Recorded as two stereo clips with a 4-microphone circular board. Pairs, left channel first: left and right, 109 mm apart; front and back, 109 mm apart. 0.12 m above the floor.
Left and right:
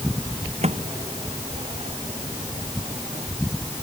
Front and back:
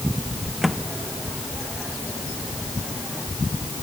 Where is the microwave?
90° right.